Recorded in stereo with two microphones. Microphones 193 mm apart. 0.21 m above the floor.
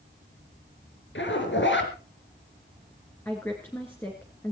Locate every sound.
1.1 s a zipper: 70° left (ahead or behind), 3.5 m
3.2 s a woman speaking: 10° left (ahead or behind), 3 m